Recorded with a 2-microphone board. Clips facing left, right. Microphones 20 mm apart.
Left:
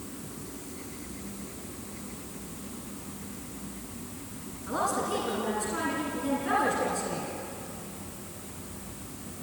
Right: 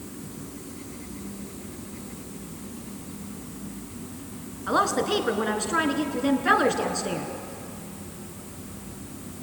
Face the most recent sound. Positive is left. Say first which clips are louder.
# right 6 dB
turn(degrees=-55)  # may be behind; listen again after turning